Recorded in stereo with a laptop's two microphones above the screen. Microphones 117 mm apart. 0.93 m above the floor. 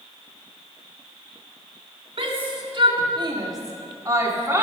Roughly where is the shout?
Right.